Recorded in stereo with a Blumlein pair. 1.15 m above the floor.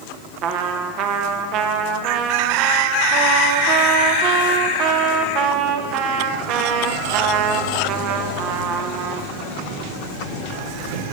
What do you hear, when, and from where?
0.4 s a trumpet: 35° right, 0.8 m